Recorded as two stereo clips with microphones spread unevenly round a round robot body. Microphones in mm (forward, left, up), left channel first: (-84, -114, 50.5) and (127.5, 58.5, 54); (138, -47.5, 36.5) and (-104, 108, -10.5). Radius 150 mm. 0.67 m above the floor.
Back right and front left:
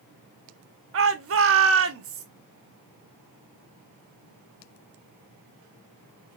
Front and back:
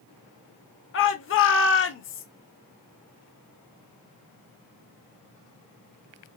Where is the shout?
15° left, 1.0 m.